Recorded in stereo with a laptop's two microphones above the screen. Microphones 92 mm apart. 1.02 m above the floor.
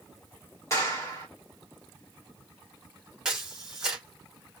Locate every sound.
0.7 s a clap: 35° left (ahead or behind), 1.8 m
3.2 s a camera shutter: 10° right (ahead or behind), 1.3 m